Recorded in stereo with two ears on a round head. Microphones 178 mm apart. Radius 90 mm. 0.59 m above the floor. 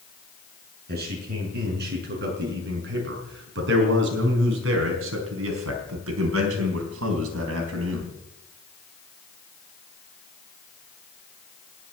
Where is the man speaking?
55° right (ahead or behind), 7 m; by 8.1 s 70° right (ahead or behind), 4.5 m.